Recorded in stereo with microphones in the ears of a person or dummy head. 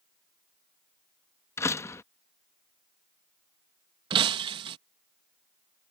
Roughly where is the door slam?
Centre.